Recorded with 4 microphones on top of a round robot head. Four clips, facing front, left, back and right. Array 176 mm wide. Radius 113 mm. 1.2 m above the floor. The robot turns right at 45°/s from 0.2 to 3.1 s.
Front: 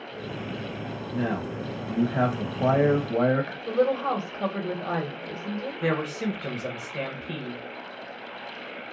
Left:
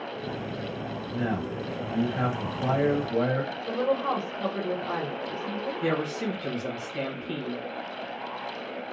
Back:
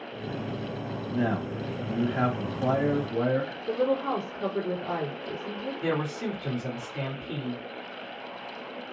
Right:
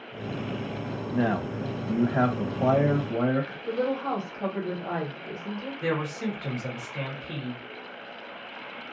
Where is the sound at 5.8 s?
15° left, 1.4 m.